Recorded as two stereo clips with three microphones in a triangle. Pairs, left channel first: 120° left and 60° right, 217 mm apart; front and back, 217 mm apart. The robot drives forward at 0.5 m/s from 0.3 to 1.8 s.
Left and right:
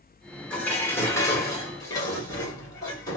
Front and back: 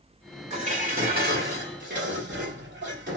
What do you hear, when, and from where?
0.5 s dishes clattering: 160° right, 1.0 m; by 3.2 s 170° right, 1.4 m